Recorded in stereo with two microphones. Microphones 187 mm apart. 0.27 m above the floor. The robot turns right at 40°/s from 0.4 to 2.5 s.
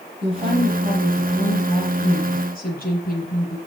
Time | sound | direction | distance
0.2 | a woman speaking | 30° right | 6.5 m